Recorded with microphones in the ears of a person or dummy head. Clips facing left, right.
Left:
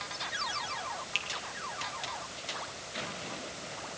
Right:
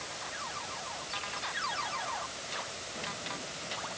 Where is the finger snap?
75° left (ahead or behind), 1.9 m.